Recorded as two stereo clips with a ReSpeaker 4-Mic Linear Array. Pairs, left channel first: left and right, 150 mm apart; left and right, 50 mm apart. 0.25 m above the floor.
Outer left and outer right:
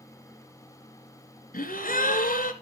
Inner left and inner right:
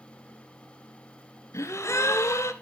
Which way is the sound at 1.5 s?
70° left (ahead or behind).